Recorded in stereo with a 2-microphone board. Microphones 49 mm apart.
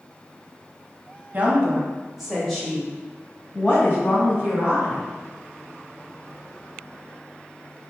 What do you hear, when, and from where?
1.3 s a woman speaking: 35° right (ahead or behind), 1.2 m; by 5.0 s 60° left (ahead or behind), 1.9 m